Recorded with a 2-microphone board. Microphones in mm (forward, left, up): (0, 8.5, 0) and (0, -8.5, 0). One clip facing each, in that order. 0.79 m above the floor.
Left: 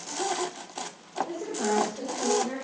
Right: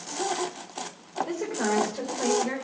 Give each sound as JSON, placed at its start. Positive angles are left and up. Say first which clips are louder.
{"t": 1.3, "sound": "a woman speaking", "louder": "right 2 dB", "side_deg": -70, "distance_m": 3.0}